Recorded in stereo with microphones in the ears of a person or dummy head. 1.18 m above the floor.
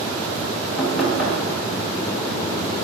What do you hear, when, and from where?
0.8 s knocking: 5° right (ahead or behind), 4 m